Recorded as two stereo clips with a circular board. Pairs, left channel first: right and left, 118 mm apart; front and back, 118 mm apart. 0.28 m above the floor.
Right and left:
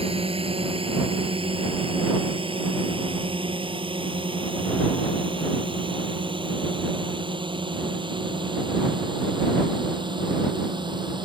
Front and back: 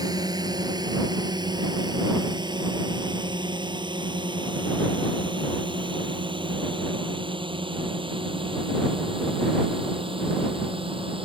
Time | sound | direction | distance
0.0 | a drone | 125° left | ?